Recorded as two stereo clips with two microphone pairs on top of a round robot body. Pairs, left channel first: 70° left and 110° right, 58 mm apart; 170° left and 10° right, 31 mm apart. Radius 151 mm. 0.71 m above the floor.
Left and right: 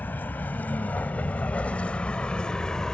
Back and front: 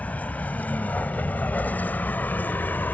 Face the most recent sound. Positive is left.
turn(degrees=150)